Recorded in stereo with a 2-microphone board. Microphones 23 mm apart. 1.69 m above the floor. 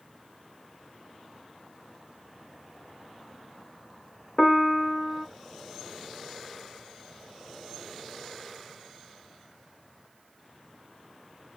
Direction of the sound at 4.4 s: 15° left (ahead or behind).